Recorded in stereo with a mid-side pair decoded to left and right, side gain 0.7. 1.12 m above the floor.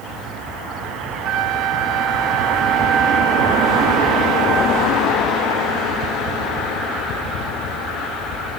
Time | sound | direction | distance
1.2 | a flute | 50° right | 1.0 m